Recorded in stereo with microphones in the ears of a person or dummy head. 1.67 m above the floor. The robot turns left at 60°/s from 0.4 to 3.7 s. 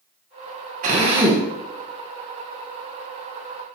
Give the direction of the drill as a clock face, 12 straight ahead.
4 o'clock.